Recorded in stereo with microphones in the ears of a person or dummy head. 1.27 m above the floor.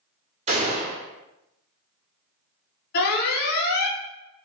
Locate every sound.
0.5 s a gunshot: 30° right (ahead or behind), 0.7 m
2.9 s an alarm: 55° left (ahead or behind), 0.8 m